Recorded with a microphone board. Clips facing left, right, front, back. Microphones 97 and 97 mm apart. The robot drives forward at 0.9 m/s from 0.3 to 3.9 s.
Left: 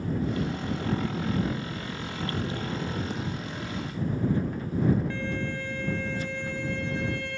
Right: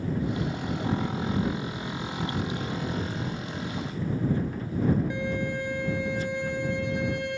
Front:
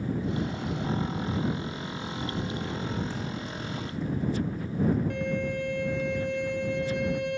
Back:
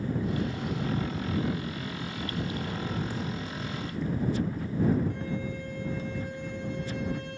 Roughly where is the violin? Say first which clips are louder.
Right 2 dB, front 4 dB; ahead.